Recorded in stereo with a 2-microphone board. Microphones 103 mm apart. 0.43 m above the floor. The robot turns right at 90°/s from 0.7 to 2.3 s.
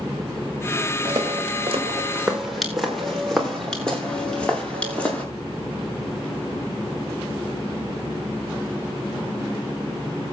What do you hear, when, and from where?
1.1 s footsteps: 55° right (ahead or behind), 5 m; by 5.2 s 15° left (ahead or behind), 6 m